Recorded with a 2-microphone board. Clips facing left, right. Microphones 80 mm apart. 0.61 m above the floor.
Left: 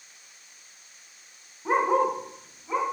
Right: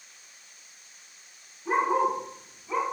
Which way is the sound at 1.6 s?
80° left.